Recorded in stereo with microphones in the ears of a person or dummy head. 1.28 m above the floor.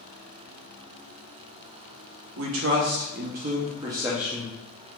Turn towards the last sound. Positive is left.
turn(degrees=10)  # may be behind; listen again after turning